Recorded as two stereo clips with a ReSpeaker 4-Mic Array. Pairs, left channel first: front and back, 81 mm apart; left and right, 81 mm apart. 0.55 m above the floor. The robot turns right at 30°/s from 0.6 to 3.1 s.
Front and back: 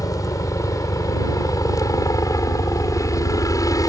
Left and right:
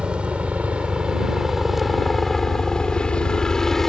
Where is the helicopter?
15° right; by 3.9 s 5° left.